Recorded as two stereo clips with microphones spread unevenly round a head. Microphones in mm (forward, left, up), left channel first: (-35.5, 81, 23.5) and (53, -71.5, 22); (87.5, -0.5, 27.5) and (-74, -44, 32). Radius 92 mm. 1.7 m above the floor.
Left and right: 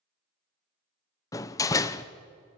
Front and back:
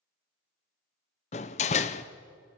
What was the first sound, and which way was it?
A door slam, 55° left.